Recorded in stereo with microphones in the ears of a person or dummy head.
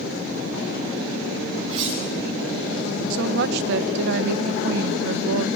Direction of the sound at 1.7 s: 35° right (ahead or behind).